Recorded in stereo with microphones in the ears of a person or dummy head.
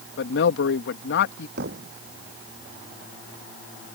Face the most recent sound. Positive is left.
turn(degrees=-50)  # may be behind; listen again after turning